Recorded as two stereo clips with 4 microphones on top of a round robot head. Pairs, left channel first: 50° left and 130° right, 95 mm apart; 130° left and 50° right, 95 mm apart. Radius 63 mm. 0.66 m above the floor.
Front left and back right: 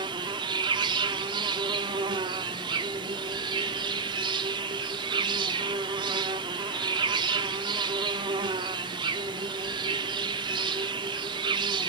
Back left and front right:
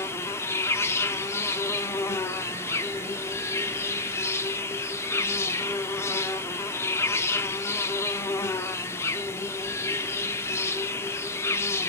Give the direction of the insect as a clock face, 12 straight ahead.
6 o'clock.